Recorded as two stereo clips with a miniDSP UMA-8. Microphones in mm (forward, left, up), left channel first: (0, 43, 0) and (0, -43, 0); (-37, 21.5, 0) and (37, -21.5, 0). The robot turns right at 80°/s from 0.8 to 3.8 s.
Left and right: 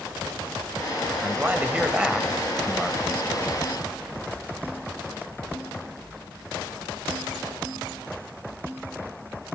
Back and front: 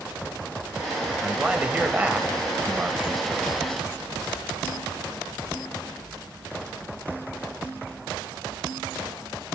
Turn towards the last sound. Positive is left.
turn(degrees=105)